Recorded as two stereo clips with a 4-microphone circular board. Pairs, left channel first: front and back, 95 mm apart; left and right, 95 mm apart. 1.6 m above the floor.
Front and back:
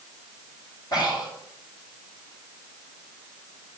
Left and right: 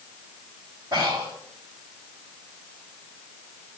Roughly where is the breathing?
Ahead right.